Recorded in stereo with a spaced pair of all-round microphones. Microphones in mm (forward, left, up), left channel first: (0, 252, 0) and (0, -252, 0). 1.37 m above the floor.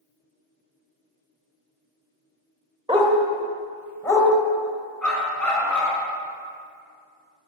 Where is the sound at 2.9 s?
10° right (ahead or behind), 1.5 m; by 4.3 s 5° left (ahead or behind), 2.0 m.